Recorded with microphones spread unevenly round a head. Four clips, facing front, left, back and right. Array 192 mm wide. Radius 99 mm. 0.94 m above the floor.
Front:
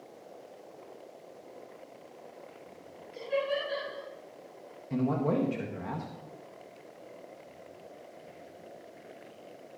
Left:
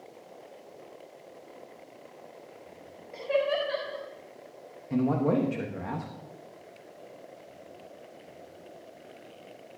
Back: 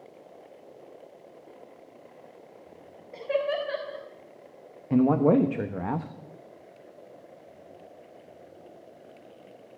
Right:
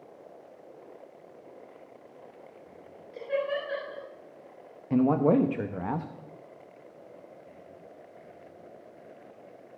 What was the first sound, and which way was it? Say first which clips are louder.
Laughter: left 3 dB, back 4 dB; 150° left.